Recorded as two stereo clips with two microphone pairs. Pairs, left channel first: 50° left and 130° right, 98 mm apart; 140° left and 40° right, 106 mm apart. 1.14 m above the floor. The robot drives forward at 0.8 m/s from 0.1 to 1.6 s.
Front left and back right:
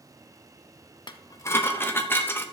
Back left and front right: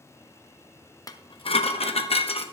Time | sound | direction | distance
1.1 | dishes clattering | 90° left | 0.8 m